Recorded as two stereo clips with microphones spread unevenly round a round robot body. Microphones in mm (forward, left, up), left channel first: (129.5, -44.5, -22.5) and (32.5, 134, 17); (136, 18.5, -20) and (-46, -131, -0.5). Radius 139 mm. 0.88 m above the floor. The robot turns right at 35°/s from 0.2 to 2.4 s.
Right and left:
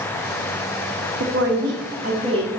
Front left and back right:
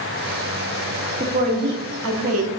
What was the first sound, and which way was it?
A woman speaking, 150° left.